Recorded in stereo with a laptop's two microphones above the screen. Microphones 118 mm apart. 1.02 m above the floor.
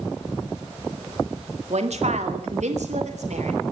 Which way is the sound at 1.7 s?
70° right (ahead or behind).